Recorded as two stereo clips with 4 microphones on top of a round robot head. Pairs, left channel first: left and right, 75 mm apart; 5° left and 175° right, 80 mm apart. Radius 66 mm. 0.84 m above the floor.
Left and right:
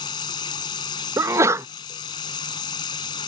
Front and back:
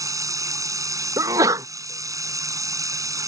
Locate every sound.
0.0 s running water: 135° left
1.2 s a sneeze: 135° right